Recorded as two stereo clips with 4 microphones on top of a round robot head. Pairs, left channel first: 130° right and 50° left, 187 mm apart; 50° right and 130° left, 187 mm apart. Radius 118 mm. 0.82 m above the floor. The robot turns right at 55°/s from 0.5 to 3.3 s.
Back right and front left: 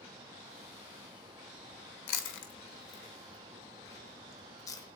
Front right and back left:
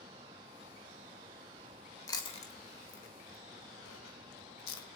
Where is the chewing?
125° right, 1.0 m; by 4.8 s 55° right, 1.0 m.